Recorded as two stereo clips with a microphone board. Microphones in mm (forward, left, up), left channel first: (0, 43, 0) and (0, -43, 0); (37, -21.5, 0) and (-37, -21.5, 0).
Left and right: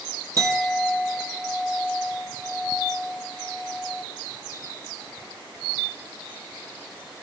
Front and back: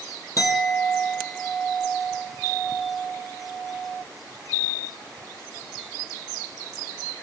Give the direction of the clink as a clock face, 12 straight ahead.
1 o'clock.